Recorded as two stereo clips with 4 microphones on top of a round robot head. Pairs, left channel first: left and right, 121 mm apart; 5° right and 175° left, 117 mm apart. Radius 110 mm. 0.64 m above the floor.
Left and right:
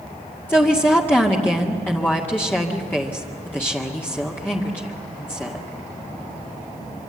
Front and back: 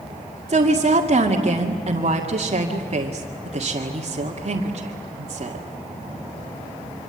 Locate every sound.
0.5 s a woman speaking: 160° left, 2 m